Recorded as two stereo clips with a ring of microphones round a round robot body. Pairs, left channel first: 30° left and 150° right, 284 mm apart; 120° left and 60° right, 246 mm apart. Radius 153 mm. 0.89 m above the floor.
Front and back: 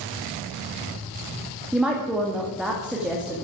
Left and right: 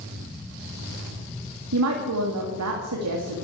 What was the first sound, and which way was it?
A woman speaking, 65° right.